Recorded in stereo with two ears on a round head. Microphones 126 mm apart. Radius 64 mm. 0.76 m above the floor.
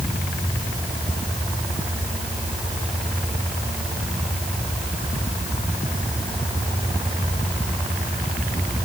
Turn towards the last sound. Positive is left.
No sound to turn to.